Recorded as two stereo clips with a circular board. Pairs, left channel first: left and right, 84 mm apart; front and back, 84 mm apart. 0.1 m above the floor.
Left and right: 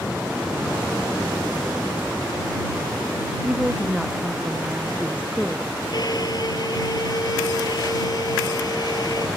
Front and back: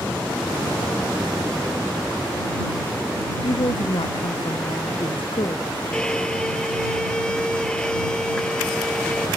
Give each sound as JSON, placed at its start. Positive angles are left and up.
{"t": 3.4, "sound": "a woman speaking", "azimuth_deg": -10}
{"t": 5.9, "sound": "a violin", "azimuth_deg": 80}